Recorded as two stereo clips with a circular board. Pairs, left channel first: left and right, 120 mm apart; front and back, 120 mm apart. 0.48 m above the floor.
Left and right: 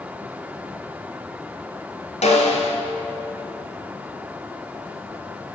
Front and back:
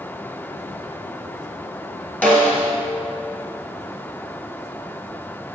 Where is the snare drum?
75° left, 1.1 m.